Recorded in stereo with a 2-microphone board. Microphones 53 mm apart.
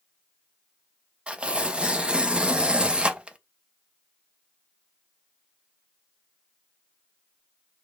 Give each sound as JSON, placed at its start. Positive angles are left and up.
{"t": 1.3, "sound": "tearing paper", "side_deg": -20, "distance_m": 0.6}